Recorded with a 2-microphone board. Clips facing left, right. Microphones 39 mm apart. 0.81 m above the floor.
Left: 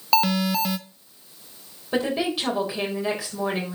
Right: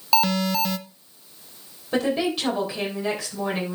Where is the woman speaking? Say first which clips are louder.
Right 1 dB; 5° left (ahead or behind), 3.5 m.